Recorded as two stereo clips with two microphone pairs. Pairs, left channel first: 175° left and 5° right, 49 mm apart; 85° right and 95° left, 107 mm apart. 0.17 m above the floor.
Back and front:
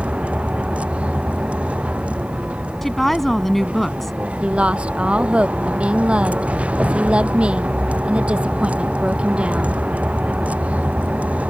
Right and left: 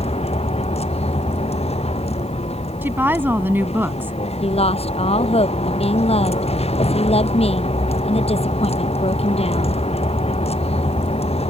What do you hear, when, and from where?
0.0 s a vehicle: 70° right; by 11.5 s 65° right
2.8 s a woman speaking: 105° left
4.4 s a woman speaking: 70° right